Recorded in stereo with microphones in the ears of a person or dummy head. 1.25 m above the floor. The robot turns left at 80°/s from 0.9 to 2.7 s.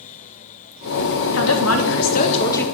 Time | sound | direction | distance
1.3 | a woman speaking | 115° left | 1.6 m